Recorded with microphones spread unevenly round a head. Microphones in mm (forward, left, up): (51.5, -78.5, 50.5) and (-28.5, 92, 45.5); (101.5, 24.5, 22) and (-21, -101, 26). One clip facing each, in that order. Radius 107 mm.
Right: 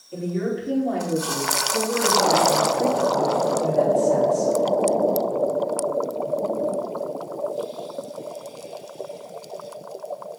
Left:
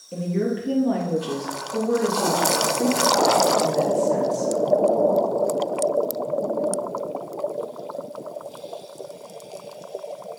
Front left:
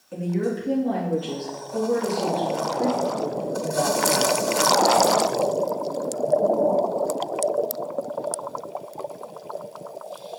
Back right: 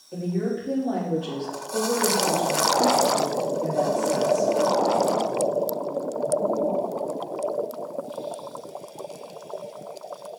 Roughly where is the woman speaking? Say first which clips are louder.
Left 1 dB, front left 1 dB; behind left.